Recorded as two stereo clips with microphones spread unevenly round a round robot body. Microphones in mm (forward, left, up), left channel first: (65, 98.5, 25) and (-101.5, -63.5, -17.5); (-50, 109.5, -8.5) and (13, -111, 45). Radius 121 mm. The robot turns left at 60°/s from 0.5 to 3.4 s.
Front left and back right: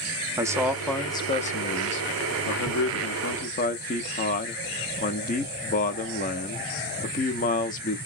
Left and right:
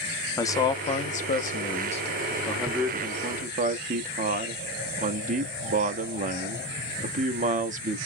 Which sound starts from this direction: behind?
A man speaking, at 0.4 s.